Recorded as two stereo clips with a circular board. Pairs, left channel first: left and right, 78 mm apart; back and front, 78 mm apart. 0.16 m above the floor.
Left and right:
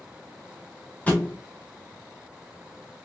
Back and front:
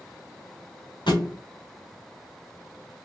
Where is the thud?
160° left, 1.7 m.